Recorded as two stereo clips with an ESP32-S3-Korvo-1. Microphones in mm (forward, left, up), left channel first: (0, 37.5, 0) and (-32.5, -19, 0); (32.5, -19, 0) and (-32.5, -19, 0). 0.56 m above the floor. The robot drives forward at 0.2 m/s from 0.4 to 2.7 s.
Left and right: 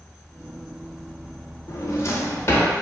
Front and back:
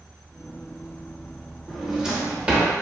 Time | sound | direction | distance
1.7 | a drawer | 95° left | 0.6 m